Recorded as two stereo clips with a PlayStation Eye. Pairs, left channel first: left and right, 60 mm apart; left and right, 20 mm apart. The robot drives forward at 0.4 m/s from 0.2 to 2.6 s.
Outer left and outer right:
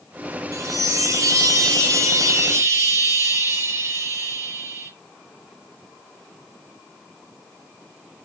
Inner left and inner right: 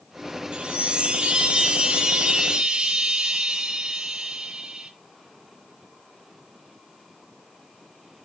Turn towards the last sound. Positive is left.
turn(degrees=-55)  # may be behind; listen again after turning